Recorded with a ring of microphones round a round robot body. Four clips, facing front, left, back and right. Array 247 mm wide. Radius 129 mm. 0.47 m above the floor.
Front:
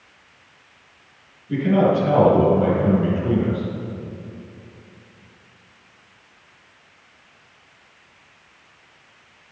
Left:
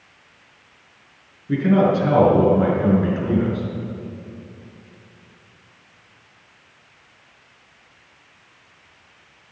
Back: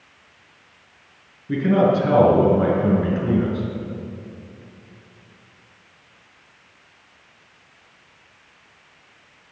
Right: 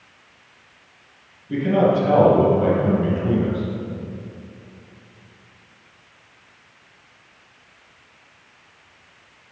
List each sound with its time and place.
1.5 s a man speaking: 135° left, 5.5 m